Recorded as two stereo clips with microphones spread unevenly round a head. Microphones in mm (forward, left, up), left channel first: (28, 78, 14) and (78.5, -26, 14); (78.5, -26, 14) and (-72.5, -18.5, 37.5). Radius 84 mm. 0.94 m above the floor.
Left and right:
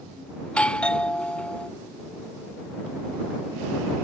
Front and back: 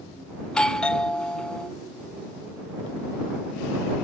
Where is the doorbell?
50° left.